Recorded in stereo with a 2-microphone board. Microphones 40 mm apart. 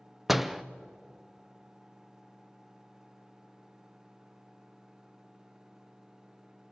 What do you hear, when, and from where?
0.3 s a door slam: 5° right (ahead or behind), 0.6 m